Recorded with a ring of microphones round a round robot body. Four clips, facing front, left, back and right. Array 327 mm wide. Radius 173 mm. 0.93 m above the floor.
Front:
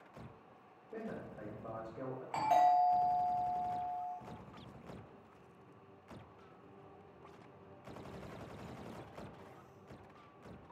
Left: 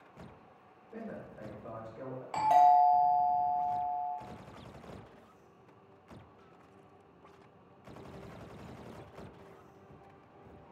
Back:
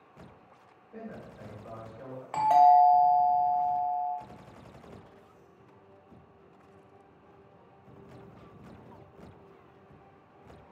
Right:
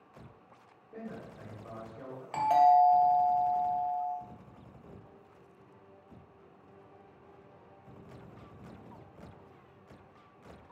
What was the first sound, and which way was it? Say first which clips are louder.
A man speaking: even, back 1 dB; 10° left.